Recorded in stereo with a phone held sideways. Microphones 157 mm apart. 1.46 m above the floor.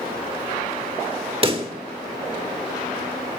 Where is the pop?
35° right (ahead or behind), 1.4 m.